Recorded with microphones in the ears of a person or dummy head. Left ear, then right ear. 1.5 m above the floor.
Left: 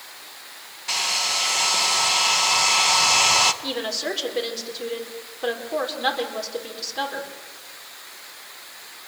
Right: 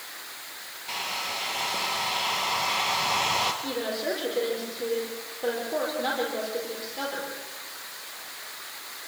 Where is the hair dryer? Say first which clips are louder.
Left 8 dB; 40° left (ahead or behind), 1.5 m.